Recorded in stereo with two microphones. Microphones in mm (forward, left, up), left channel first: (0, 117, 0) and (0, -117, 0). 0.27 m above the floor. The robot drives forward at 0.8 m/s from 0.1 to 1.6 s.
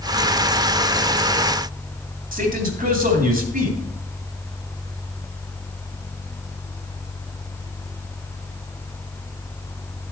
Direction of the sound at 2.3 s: 35° right (ahead or behind).